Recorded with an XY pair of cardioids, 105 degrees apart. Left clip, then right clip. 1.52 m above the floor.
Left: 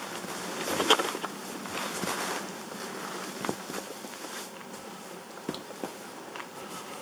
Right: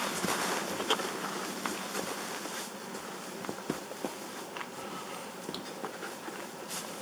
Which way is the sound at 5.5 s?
5° right.